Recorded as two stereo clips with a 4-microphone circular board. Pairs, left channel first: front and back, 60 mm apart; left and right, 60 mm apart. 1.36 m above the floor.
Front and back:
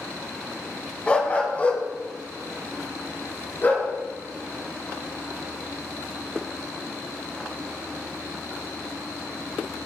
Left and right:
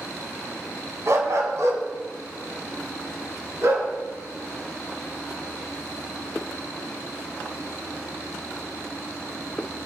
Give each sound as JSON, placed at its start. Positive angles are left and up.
{"t": 1.1, "sound": "a dog barking", "azimuth_deg": -65, "distance_m": 2.5}